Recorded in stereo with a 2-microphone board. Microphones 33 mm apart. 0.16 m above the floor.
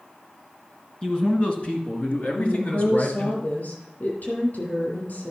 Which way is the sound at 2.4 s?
60° left (ahead or behind).